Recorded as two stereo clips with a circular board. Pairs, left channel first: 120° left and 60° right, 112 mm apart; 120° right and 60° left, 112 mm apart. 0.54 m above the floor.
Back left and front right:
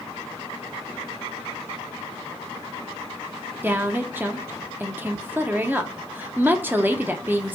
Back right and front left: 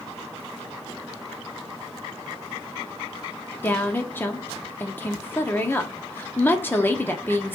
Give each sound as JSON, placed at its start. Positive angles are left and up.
{"t": 3.6, "sound": "a woman speaking", "azimuth_deg": -95, "distance_m": 0.6}